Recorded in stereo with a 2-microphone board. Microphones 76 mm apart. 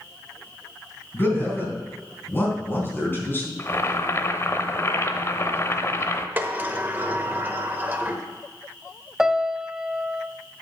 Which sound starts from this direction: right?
A sliding door, at 6.4 s.